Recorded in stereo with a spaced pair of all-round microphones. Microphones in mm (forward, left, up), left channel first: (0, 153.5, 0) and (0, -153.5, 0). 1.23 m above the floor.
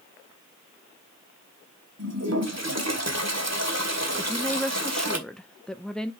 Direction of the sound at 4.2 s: Centre (ahead or behind).